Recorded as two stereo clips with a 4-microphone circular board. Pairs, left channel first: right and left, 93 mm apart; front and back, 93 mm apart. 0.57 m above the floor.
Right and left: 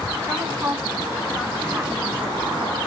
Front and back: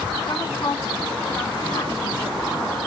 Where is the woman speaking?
30° left, 1.2 m.